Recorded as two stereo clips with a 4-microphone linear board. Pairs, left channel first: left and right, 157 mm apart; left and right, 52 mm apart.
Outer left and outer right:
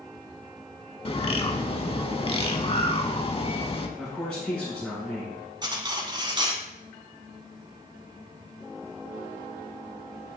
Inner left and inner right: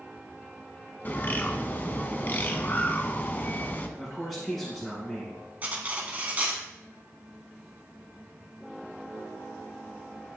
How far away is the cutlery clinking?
About 1.0 m.